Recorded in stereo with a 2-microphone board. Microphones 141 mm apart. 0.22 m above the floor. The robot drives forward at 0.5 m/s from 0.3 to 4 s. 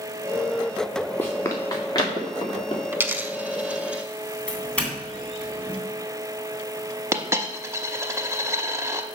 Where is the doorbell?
10° left (ahead or behind), 2.5 m.